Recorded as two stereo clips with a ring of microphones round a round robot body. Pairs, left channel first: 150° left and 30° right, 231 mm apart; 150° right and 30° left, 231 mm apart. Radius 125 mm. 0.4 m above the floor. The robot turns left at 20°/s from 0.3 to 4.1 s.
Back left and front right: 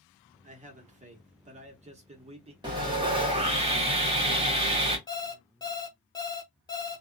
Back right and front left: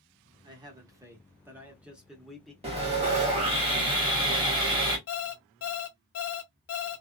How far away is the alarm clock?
About 0.7 m.